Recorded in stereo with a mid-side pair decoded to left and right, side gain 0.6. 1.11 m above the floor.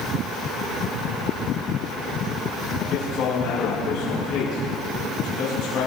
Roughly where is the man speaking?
Ahead left.